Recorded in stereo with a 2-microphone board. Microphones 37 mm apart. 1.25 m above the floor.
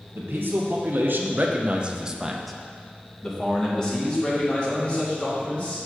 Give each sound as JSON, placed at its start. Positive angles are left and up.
{"t": 0.1, "sound": "a man speaking", "side_deg": -80, "distance_m": 1.0}